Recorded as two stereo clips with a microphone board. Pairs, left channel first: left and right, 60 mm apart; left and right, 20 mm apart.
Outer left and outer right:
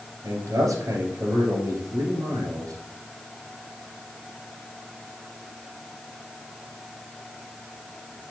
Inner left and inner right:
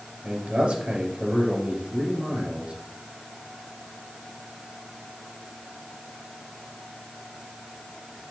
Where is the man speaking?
70° right (ahead or behind), 2.5 m.